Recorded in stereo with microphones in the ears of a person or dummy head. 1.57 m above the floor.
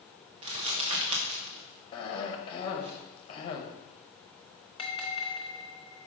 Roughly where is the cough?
Left.